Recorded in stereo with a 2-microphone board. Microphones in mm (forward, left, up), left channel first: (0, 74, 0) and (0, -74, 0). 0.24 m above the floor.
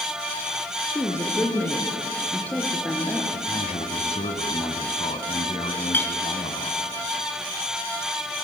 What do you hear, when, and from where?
0.9 s a woman speaking: 20° left (ahead or behind), 3.5 m; by 3.2 s 10° left (ahead or behind), 5 m
3.3 s a man speaking: 50° left (ahead or behind), 2 m
5.9 s a clink: 15° left (ahead or behind), 2.5 m